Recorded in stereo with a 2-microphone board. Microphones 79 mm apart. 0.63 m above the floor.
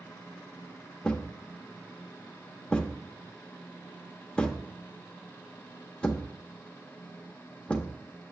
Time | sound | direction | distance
1.0 | a thud | 15° left (ahead or behind) | 0.6 m